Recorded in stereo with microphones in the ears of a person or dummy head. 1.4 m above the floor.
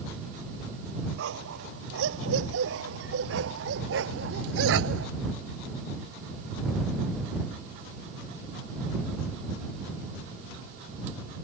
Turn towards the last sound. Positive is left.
turn(degrees=-80)